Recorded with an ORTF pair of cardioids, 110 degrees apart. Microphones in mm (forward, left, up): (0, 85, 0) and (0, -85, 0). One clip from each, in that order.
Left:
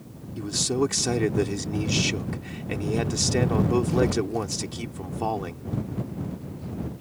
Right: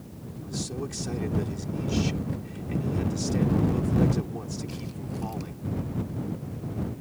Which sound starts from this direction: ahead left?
A man speaking, at 0.4 s.